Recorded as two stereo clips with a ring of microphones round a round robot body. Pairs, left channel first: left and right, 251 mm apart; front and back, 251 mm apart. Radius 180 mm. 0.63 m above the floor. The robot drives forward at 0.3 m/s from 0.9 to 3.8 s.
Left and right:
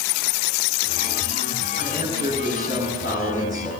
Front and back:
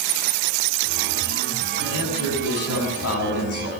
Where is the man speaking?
20° left, 6.5 m.